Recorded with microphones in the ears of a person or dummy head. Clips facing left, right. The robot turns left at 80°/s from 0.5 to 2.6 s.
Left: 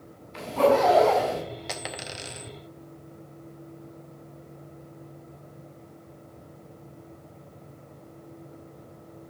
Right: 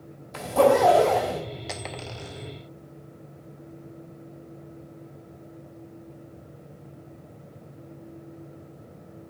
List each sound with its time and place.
0.3 s a zipper: 95° right, 3.5 m; by 1.4 s 170° right, 3.5 m
1.7 s a dropped coin: centre (ahead or behind), 0.6 m; by 2.5 s 35° left (ahead or behind), 0.6 m